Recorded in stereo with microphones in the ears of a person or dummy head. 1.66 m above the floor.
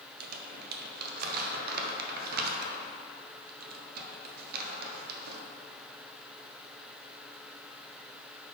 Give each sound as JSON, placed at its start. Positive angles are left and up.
{"t": 0.2, "sound": "crumpling", "side_deg": -55, "distance_m": 0.9}